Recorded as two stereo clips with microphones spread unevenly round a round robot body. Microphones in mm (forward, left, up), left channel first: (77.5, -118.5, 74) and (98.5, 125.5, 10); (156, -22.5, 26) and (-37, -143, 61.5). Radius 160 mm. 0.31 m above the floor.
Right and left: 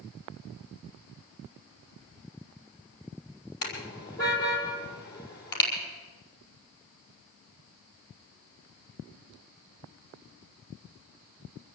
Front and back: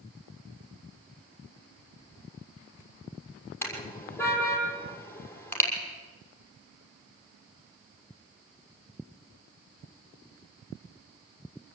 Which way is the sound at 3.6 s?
45° right.